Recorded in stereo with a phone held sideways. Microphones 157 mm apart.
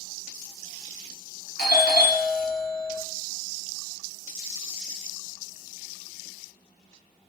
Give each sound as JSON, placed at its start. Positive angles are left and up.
{"t": 1.6, "sound": "a doorbell", "side_deg": 75, "distance_m": 0.8}